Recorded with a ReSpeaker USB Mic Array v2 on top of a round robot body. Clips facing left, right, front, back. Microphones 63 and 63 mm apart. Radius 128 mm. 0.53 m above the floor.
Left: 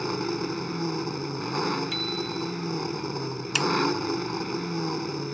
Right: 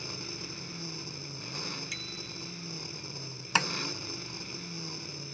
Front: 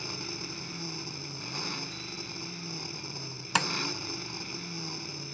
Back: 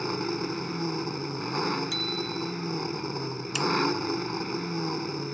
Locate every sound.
0.0 s an engine running: 130° left
1.9 s a bicycle bell: 170° right
3.5 s tapping: 30° right